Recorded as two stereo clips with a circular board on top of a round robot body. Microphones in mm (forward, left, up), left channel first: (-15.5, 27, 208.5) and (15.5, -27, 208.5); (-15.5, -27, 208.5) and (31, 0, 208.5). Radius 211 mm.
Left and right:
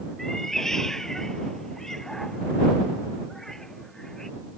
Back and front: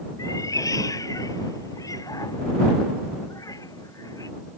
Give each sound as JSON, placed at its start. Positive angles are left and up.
{"t": 0.2, "sound": "a cat meowing", "azimuth_deg": -155}